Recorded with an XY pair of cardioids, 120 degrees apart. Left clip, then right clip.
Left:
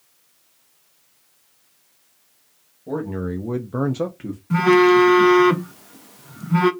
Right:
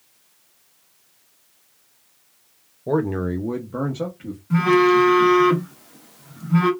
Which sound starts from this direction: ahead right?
A man speaking, at 2.9 s.